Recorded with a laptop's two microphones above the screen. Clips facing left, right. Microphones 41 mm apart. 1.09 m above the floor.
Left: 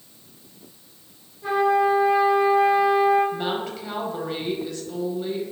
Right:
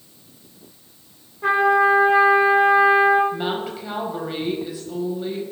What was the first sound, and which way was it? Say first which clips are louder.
A trumpet: right 3 dB; 75° right (ahead or behind).